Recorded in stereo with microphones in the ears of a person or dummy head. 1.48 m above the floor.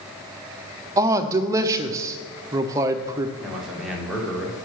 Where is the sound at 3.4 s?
Centre (ahead or behind), 1.5 m.